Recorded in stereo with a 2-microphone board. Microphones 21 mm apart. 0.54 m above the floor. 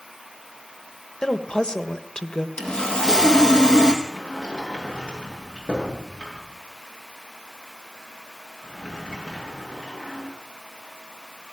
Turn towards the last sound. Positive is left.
turn(degrees=50)  # may be behind; listen again after turning